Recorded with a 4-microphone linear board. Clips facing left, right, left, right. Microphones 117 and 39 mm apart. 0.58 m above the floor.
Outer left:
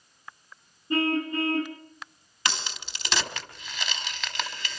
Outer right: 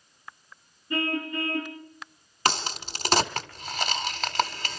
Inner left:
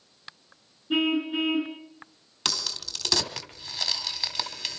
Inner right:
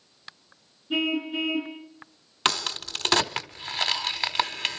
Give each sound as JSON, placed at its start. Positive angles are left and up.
{"t": 0.9, "sound": "a car horn", "side_deg": 30, "distance_m": 3.0}
{"t": 2.5, "sound": "a crack", "side_deg": -45, "distance_m": 1.4}